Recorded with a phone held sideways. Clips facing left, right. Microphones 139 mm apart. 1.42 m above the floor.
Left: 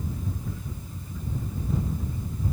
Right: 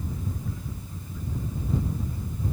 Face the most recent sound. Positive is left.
No sound to turn to.